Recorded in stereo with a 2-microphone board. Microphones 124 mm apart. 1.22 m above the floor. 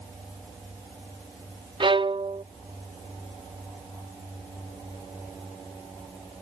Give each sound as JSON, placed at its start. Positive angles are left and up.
{"t": 1.8, "sound": "a violin", "side_deg": -40}